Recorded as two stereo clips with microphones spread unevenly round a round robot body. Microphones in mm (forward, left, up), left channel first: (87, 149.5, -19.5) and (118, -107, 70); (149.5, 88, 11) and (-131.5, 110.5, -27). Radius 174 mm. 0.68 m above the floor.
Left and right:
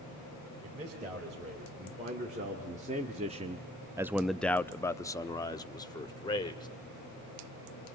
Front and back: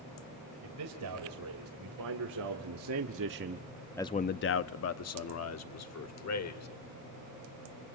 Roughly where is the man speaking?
Behind right.